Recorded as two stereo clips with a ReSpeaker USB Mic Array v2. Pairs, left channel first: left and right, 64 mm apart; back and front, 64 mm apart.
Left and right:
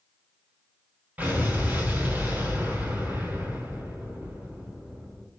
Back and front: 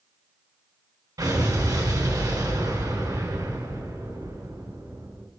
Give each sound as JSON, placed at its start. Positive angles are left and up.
{"t": 1.2, "sound": "an explosion", "azimuth_deg": -25, "distance_m": 5.0}